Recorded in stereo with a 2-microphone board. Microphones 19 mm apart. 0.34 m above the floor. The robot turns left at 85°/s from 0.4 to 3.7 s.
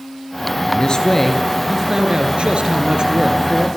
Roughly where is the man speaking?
Left.